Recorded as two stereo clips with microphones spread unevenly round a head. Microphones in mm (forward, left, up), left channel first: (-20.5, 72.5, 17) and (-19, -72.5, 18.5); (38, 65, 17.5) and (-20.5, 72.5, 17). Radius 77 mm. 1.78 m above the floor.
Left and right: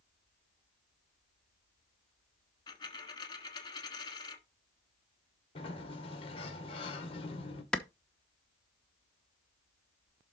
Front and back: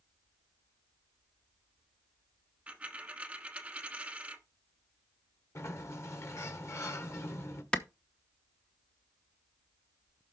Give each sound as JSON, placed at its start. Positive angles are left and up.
{"t": 2.7, "sound": "a dropped coin", "azimuth_deg": 125, "distance_m": 1.3}
{"t": 5.5, "sound": "a sliding door", "azimuth_deg": 30, "distance_m": 2.0}
{"t": 7.7, "sound": "a clap", "azimuth_deg": 15, "distance_m": 0.8}